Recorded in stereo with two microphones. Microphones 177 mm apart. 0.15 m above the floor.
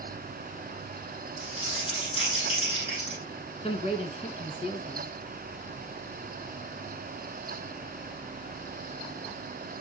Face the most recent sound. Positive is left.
turn(degrees=35)  # may be behind; listen again after turning